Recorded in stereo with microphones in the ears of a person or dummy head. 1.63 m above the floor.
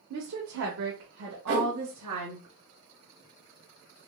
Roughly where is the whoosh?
Right.